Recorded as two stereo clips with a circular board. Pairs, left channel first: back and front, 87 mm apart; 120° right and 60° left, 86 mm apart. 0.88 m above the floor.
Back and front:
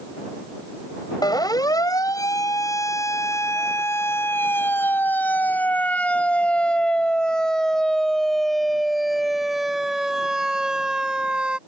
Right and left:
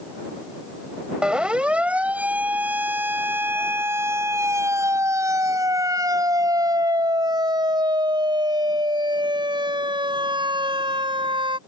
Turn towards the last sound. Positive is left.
turn(degrees=80)